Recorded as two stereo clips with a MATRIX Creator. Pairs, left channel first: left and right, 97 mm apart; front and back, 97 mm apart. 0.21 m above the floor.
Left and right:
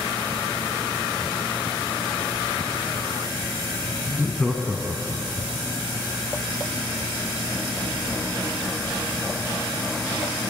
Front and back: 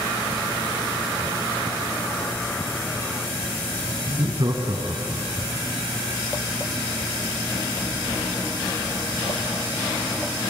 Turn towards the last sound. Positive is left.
turn(degrees=-115)